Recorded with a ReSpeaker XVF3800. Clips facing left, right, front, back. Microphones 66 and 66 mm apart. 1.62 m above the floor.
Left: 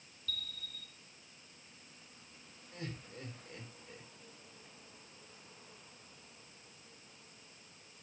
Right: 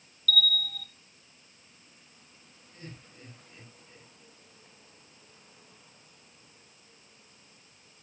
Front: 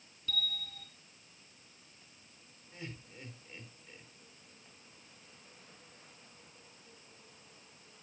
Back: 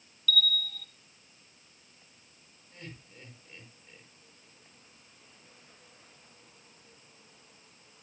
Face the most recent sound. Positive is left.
turn(degrees=85)